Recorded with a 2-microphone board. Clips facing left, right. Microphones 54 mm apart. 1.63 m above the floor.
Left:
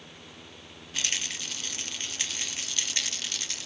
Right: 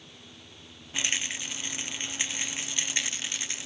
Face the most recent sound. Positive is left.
turn(degrees=-20)  # may be behind; listen again after turning